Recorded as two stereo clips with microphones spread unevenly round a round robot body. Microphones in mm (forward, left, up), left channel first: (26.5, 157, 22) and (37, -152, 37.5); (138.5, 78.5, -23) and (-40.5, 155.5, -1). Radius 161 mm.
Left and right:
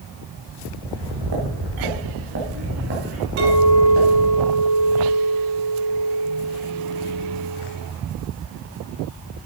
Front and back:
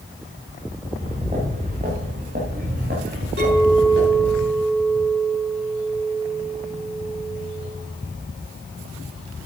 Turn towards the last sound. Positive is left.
turn(degrees=-145)